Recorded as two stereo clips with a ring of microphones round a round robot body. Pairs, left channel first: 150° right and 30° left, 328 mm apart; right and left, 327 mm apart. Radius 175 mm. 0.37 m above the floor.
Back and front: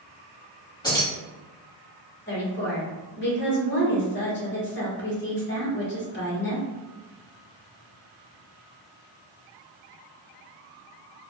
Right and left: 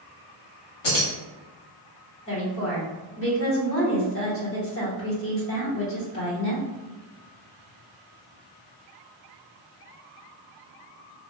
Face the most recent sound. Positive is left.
turn(degrees=-110)